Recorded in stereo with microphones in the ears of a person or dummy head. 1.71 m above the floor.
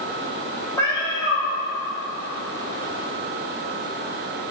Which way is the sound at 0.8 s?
15° left (ahead or behind).